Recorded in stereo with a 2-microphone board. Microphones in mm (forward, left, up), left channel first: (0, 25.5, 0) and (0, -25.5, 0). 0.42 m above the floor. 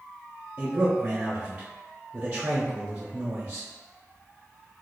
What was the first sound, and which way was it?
A man speaking, 20° right (ahead or behind).